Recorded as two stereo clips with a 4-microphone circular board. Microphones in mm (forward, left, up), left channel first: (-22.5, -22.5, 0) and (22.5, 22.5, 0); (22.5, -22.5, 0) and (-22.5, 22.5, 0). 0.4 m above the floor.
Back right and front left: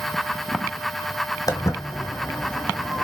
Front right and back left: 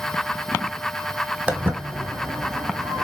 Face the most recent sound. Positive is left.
turn(degrees=135)